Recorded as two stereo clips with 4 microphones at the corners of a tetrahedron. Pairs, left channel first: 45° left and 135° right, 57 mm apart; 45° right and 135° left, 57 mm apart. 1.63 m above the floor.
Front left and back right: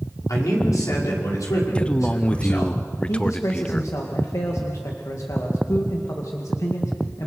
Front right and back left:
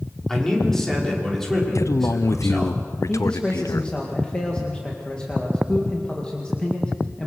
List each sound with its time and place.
0.3 s a man speaking: 35° left, 5.5 m
1.8 s a man speaking: 25° right, 0.6 m
3.1 s a man speaking: 25° left, 2 m